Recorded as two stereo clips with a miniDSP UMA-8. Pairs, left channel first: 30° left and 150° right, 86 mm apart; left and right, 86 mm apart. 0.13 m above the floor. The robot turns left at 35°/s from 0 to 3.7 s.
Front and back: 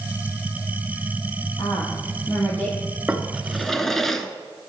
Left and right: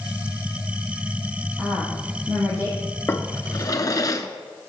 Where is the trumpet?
I don't hear a trumpet.